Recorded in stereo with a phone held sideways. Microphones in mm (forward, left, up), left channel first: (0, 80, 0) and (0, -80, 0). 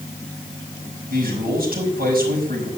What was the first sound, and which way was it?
A man speaking, 75° right (ahead or behind).